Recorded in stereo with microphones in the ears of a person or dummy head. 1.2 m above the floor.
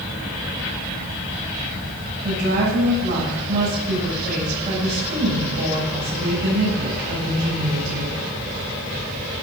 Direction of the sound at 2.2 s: 40° right (ahead or behind).